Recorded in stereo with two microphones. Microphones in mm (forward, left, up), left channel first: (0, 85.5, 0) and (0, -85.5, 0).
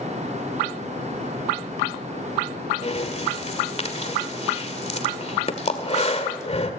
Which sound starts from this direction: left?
Breathing, at 2.8 s.